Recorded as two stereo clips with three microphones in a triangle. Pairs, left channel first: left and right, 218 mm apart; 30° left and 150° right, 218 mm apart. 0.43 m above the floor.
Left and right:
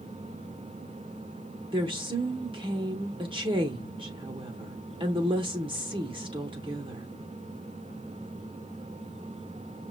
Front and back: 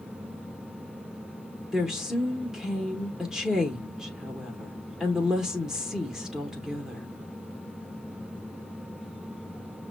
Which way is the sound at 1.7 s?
65° right.